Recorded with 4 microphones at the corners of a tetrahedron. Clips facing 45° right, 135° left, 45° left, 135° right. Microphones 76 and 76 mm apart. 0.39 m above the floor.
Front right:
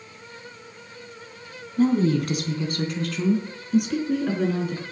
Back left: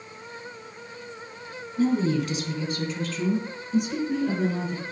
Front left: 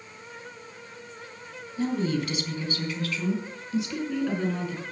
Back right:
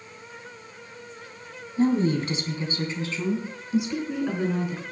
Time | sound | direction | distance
1.8 | a woman speaking | 80° right | 3 m